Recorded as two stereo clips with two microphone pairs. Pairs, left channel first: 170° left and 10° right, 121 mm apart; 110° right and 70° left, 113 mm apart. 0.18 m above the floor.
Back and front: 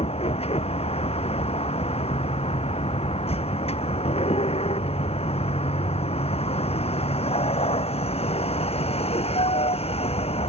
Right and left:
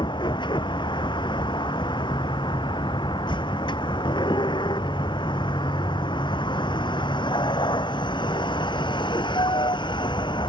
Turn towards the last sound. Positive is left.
turn(degrees=-155)